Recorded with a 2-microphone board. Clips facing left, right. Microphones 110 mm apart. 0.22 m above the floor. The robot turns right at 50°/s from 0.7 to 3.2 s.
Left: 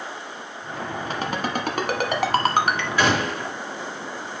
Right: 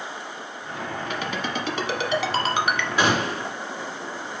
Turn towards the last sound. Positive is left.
turn(degrees=-30)  # may be behind; listen again after turning